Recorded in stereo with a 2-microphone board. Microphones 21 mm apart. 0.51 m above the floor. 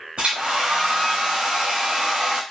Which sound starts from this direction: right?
A hair dryer, at 0.2 s.